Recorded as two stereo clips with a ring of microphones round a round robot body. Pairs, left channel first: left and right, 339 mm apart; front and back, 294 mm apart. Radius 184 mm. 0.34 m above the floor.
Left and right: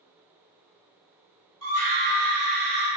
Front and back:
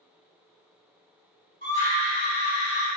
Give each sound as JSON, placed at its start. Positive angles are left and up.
{"t": 1.6, "sound": "a scream", "azimuth_deg": -130, "distance_m": 1.7}